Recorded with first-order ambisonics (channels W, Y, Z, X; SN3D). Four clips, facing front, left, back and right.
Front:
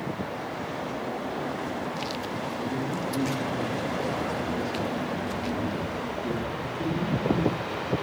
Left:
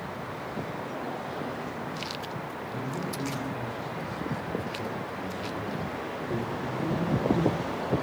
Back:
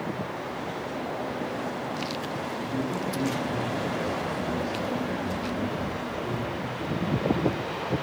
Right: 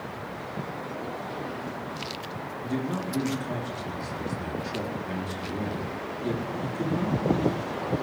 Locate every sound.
2.6 s a man speaking: 75° right, 4 m